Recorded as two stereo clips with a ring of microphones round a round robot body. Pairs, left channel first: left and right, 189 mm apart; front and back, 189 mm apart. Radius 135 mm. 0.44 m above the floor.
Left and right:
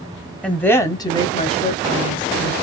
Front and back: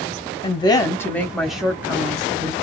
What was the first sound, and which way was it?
A woman speaking, 10° left.